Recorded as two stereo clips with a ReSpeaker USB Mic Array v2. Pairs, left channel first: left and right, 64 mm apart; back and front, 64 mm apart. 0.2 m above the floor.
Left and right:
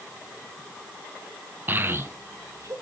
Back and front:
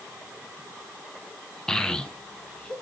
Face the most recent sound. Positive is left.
turn(degrees=-110)